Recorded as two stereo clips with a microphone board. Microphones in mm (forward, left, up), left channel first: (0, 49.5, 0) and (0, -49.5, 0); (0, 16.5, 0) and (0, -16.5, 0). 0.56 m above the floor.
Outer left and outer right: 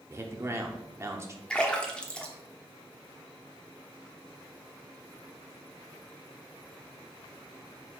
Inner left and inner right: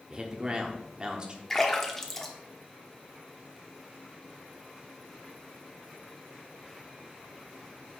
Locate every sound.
0.1 s a man speaking: 30° right (ahead or behind), 1.1 m
1.5 s a splash: 10° left (ahead or behind), 1.0 m